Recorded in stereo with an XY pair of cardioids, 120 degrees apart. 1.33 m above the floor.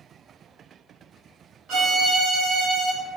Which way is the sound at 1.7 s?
60° right.